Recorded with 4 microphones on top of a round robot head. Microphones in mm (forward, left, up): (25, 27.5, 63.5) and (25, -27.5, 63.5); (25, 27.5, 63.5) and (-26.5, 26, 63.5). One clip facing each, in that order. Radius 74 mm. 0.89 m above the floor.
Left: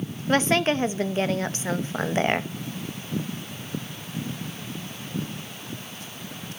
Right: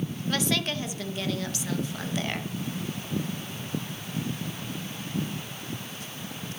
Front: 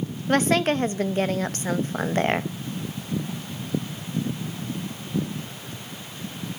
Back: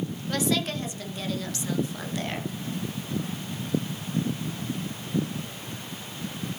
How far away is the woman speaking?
About 0.8 m.